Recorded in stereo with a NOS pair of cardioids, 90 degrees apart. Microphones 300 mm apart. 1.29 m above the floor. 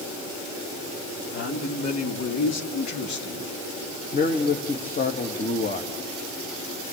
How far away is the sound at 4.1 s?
About 1.8 m.